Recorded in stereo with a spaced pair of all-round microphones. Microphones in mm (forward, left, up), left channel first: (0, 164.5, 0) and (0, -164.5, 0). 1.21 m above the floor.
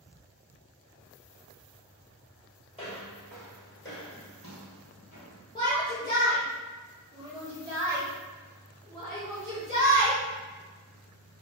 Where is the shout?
15° left (ahead or behind), 1.1 m.